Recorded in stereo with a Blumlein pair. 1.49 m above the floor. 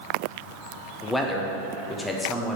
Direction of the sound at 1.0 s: 5° left.